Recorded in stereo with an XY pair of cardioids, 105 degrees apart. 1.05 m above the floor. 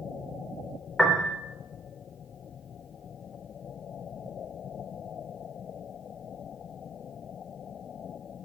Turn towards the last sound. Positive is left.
turn(degrees=5)